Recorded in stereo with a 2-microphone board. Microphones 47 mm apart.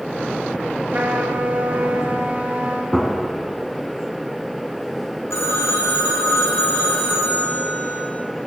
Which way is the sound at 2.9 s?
5° right (ahead or behind).